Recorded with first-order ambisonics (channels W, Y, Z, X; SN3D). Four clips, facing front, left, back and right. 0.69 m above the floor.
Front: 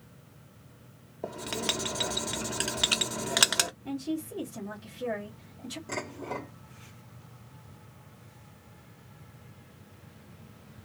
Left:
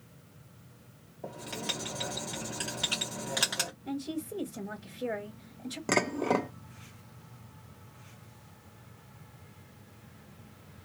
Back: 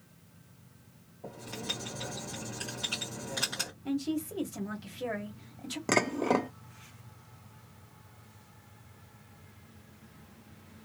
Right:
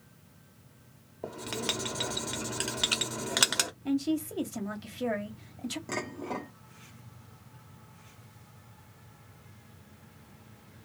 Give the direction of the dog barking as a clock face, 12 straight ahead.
I don't hear a dog barking.